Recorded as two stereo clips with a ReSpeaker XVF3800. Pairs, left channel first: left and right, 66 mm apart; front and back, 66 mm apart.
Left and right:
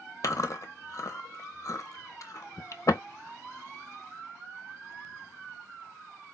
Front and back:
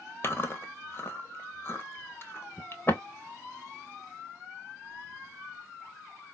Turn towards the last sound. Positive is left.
turn(degrees=55)